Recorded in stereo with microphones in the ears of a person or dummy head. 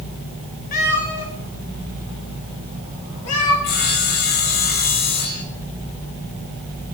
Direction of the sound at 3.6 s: 45° left (ahead or behind).